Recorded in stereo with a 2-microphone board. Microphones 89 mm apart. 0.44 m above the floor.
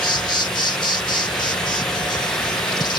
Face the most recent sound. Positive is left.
turn(degrees=55)  # may be behind; listen again after turning